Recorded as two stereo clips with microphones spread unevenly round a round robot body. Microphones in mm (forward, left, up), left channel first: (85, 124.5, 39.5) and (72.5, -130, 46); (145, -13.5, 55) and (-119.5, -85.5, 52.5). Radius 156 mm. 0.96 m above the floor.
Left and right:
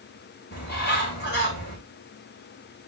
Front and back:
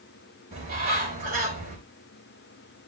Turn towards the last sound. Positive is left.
turn(degrees=145)